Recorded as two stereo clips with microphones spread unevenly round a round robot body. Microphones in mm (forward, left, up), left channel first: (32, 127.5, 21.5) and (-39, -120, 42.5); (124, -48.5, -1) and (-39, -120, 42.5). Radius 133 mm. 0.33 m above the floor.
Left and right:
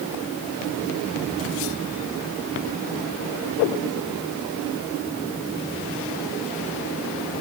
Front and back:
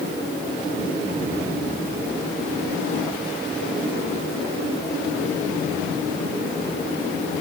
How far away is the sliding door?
No sliding door in this recording.